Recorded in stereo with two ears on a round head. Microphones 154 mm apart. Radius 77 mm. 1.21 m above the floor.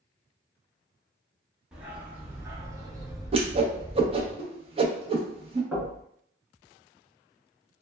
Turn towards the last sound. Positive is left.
turn(degrees=-5)  # may be behind; listen again after turning